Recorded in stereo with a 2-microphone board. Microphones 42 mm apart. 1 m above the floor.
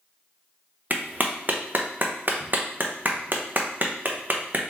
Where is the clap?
45° right (ahead or behind), 0.7 m.